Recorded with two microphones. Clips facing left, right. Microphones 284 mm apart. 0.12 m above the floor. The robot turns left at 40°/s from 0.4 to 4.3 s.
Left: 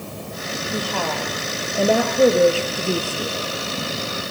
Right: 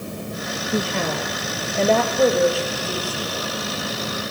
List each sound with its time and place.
0.7 s a woman speaking: 140° right, 3.5 m; by 3.4 s 110° left, 3.5 m